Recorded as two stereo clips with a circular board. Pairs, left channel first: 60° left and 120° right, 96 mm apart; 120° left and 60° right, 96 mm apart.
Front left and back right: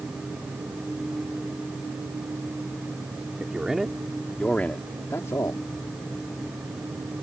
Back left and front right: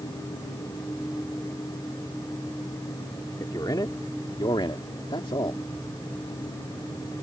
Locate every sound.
3.4 s a man speaking: 160° left; by 5.6 s 105° left